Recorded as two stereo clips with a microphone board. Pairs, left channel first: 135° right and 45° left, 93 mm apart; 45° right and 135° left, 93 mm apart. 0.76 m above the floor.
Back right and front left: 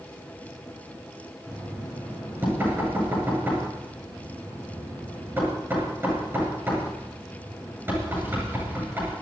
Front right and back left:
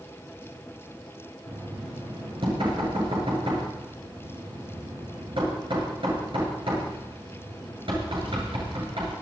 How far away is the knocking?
About 9 m.